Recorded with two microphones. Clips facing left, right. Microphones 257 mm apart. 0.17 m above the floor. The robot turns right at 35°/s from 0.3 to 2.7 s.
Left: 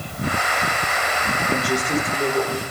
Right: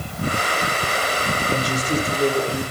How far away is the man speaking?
About 4.5 m.